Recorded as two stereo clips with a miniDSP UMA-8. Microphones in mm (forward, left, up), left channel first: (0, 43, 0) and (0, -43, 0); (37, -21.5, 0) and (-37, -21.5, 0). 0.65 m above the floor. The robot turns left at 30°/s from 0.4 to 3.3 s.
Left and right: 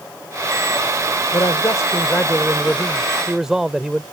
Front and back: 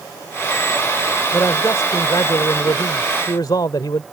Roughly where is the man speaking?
Ahead left.